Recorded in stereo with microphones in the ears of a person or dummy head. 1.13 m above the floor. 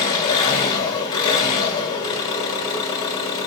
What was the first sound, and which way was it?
An engine running, 25° left (ahead or behind).